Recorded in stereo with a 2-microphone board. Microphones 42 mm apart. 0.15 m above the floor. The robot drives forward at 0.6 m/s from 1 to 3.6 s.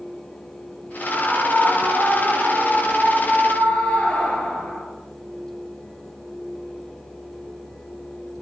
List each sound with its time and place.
1.0 s a scream: 40° left (ahead or behind), 2.5 m; by 4.8 s 25° left (ahead or behind), 3 m